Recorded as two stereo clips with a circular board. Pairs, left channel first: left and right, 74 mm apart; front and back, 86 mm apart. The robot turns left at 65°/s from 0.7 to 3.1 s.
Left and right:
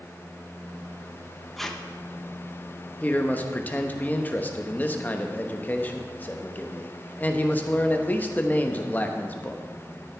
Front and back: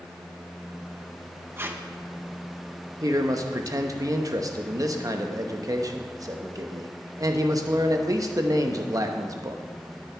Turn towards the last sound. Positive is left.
turn(degrees=150)